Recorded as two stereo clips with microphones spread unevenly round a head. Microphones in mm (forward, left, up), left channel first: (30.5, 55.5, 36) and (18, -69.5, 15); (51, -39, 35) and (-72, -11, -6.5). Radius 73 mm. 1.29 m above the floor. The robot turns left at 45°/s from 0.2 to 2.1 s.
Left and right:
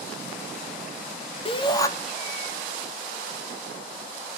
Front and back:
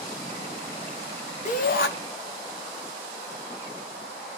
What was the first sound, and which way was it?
A shout, 35° left.